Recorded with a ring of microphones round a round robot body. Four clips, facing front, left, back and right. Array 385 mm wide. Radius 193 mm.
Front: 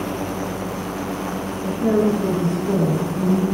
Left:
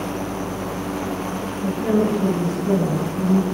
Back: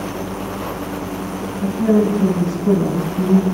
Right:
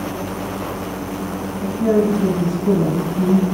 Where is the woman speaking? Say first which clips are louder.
Right 3 dB, back 3 dB; 155° right, 5.5 m; by 3.5 s 165° right, 5.5 m.